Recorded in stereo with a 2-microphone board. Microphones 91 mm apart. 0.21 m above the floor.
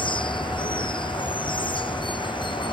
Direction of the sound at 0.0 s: 60° left (ahead or behind).